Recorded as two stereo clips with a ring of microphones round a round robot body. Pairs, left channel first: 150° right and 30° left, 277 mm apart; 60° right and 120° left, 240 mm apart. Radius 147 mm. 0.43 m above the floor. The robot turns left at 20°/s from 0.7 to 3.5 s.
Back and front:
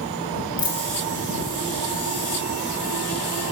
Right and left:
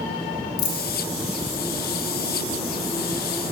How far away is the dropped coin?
About 1.6 m.